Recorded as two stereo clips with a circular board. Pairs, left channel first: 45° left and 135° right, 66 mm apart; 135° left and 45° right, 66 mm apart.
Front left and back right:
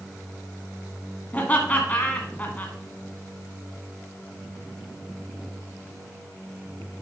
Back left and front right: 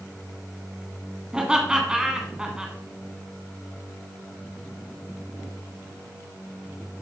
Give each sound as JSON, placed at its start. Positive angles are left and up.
{"t": 1.3, "sound": "laughter", "azimuth_deg": 20, "distance_m": 1.2}